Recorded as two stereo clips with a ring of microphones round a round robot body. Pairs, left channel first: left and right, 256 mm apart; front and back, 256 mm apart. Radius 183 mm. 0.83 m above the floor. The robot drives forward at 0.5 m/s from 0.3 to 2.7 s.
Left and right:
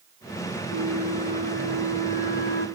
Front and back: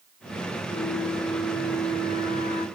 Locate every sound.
0.7 s a flute: 30° left, 1.7 m; by 2.7 s 65° left, 1.1 m